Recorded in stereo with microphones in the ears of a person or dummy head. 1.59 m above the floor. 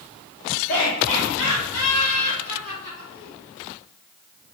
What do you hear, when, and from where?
0.7 s laughter: 65° left (ahead or behind), 1.7 m; by 3.3 s 80° left, 5.5 m